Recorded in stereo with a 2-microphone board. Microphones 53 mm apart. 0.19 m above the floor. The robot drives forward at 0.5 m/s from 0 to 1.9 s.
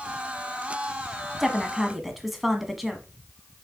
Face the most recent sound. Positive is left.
turn(degrees=-5)  # may be behind; listen again after turning